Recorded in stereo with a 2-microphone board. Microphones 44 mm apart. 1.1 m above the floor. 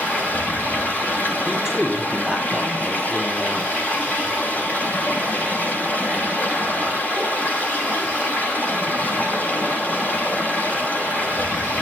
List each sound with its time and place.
0.0 s running water: 35° left (ahead or behind), 6.5 m
1.4 s a man speaking: 10° right (ahead or behind), 8 m